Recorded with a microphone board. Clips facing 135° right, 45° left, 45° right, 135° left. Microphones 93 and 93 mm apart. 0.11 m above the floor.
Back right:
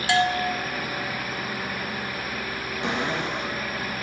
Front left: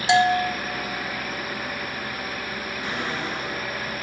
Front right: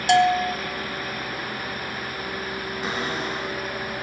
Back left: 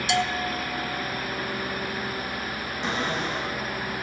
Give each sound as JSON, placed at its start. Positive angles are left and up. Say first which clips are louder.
{"t": 0.1, "sound": "a bell", "louder": "front left 4 dB, front right 9 dB", "azimuth_deg": -20, "distance_m": 0.6}
{"t": 2.8, "sound": "a cupboard door", "louder": "back right 4 dB, back left 1 dB", "azimuth_deg": -130, "distance_m": 1.8}